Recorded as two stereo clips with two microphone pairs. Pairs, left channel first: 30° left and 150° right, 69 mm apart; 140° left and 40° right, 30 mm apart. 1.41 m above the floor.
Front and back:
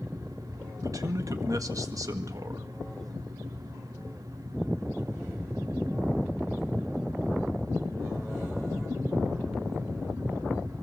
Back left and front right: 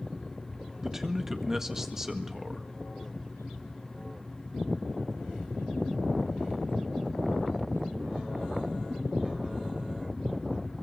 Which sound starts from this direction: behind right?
A man speaking, at 0.8 s.